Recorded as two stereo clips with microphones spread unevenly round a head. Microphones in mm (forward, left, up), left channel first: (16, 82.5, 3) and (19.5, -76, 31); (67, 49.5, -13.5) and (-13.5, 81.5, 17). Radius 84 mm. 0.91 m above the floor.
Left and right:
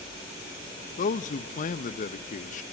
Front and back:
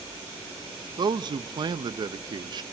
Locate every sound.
1.0 s a man speaking: 110° left, 0.5 m